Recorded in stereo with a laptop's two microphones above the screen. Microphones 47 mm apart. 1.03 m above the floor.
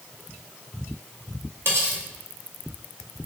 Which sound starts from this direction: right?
Cutlery clinking, at 1.6 s.